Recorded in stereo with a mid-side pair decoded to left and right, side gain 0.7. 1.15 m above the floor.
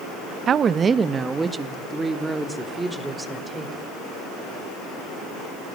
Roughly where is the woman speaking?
Ahead right.